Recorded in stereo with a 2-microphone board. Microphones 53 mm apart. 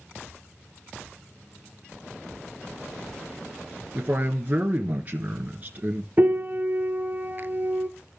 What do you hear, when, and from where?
4.0 s a man speaking: 35° right (ahead or behind), 1.2 m
6.2 s a piano: 40° right (ahead or behind), 0.7 m